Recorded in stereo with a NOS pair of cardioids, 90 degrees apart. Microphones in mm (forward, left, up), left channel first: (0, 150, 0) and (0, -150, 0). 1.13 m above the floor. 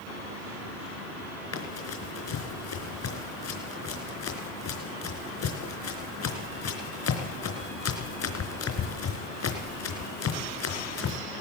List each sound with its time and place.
1.5 s running footsteps: 60° left, 4.5 m